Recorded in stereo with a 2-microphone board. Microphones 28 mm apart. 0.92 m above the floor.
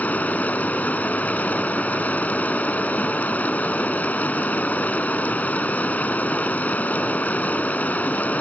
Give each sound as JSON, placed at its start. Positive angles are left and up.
{"t": 0.0, "sound": "running water", "side_deg": 85}